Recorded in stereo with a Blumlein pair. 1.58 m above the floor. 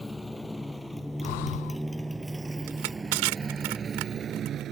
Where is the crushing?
45° right.